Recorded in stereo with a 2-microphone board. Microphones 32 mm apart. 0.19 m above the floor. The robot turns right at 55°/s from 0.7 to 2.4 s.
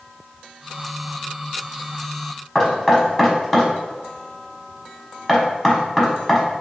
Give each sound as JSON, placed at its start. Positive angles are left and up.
{"t": 2.5, "sound": "knocking", "side_deg": 10, "distance_m": 0.8}